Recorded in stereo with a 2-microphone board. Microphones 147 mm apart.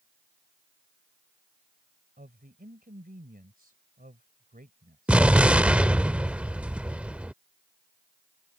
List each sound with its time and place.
2.2 s a woman speaking: 75° right (ahead or behind)
5.1 s an explosion: 10° right (ahead or behind)